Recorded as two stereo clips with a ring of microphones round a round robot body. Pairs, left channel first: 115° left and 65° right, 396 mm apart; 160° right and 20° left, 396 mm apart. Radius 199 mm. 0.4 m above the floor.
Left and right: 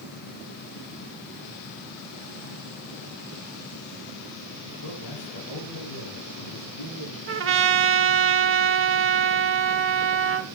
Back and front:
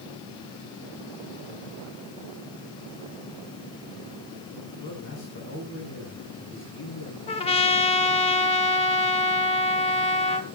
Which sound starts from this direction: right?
A trumpet, at 7.3 s.